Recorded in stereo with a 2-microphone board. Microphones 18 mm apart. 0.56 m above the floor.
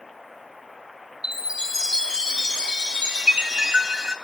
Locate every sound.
1.2 s a chime: 40° right (ahead or behind), 1.8 m